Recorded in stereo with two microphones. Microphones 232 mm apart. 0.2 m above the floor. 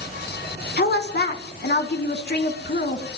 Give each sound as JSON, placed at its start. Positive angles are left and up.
{"t": 0.8, "sound": "a woman speaking", "side_deg": 45, "distance_m": 1.8}